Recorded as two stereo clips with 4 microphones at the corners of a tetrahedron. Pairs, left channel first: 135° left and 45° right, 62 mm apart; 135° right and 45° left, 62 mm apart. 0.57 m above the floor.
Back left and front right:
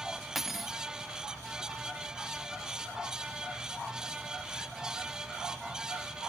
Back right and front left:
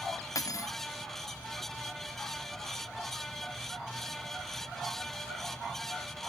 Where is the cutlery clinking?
130° right, 0.6 m.